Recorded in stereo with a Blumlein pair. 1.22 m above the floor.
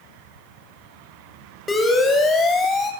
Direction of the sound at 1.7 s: 10° left.